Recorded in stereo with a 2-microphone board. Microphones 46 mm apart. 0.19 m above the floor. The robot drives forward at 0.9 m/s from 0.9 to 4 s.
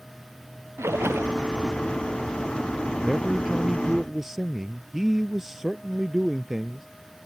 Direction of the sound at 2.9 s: 10° right (ahead or behind).